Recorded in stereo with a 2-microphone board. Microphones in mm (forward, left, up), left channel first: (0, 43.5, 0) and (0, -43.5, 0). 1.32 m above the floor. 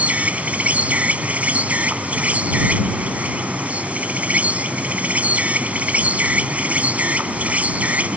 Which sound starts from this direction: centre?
An insect, at 0.0 s.